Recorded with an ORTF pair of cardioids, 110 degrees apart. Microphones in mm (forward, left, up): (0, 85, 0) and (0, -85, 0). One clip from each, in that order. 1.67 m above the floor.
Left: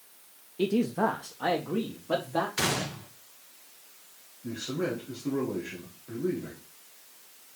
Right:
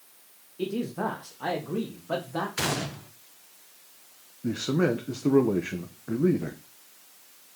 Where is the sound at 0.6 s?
25° left, 1.0 m; by 2.5 s 5° left, 2.5 m.